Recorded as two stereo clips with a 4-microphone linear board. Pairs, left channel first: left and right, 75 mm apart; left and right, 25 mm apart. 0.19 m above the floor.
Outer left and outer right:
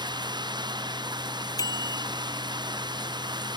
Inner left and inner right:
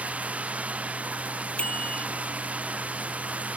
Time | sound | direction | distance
0.0 | running water | 85° right | ?
1.6 | a bicycle bell | 60° left (ahead or behind) | ?